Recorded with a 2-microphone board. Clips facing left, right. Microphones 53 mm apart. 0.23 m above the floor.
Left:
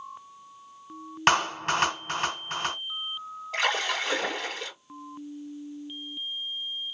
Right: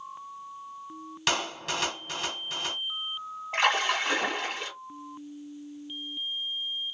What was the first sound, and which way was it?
A clap, 40° left (ahead or behind).